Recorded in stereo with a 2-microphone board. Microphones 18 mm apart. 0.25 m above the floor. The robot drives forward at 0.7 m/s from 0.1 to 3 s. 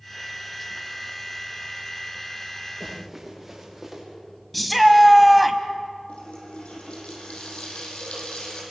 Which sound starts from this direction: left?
A running tap, at 6.1 s.